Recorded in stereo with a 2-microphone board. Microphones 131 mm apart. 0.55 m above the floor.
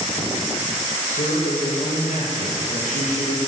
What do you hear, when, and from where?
1.1 s a man speaking: 75° left (ahead or behind), 6.5 m